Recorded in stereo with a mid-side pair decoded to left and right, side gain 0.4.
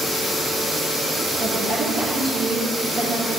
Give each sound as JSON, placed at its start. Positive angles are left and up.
{"t": 1.4, "sound": "a woman speaking", "azimuth_deg": -50, "distance_m": 3.0}